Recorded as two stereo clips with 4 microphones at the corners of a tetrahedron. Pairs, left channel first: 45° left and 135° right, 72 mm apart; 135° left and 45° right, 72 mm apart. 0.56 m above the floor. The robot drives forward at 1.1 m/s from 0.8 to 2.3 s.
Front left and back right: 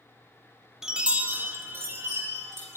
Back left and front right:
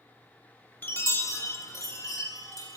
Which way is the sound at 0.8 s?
150° left.